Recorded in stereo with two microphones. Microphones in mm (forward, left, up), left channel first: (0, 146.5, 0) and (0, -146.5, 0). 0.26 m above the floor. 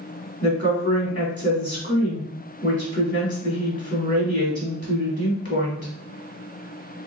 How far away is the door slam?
No door slam in this recording.